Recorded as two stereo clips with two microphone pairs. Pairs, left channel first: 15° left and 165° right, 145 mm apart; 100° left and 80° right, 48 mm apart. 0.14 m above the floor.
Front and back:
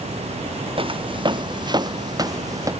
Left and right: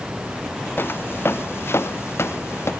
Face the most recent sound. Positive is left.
turn(degrees=125)